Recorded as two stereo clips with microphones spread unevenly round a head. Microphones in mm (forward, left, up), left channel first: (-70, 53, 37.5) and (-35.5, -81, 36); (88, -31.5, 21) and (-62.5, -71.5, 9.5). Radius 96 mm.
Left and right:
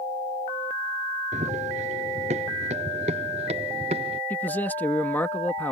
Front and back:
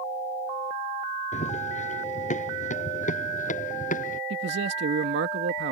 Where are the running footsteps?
25° right; by 4.2 s 20° right.